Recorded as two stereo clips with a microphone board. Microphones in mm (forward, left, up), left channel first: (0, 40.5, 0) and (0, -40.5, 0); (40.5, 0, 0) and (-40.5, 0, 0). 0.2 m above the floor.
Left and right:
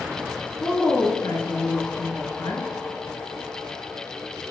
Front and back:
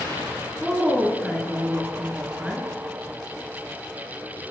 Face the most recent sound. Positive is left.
turn(degrees=90)